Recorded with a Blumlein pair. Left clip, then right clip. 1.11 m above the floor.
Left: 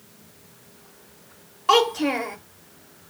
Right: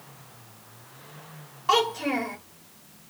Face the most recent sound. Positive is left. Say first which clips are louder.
# left 4 dB
turn(degrees=15)